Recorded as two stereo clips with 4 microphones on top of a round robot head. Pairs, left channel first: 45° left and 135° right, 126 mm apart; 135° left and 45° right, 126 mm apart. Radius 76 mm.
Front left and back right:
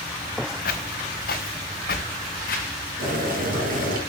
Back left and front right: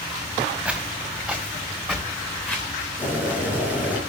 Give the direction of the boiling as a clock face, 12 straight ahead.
4 o'clock.